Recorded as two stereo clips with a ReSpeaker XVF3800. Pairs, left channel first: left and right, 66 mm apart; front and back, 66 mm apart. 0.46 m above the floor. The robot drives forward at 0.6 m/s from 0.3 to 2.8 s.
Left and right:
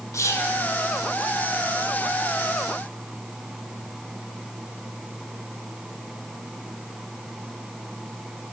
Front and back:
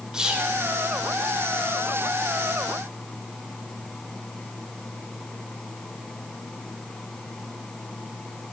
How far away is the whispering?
About 1.4 m.